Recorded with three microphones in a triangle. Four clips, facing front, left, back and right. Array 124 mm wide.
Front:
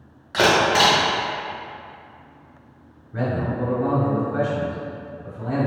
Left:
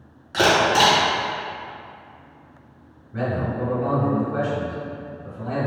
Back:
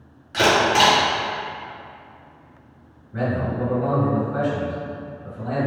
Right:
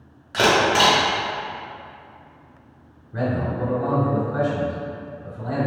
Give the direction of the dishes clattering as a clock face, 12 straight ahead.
I don't hear dishes clattering.